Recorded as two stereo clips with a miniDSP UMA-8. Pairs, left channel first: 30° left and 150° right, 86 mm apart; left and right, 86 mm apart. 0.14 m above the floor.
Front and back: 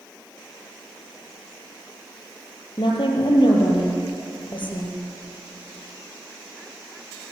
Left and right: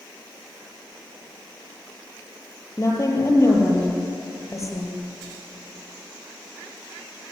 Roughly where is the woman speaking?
Ahead left.